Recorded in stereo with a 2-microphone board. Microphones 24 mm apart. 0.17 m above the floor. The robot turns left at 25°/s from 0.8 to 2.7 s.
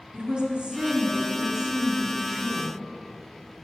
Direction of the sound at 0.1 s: 120° right.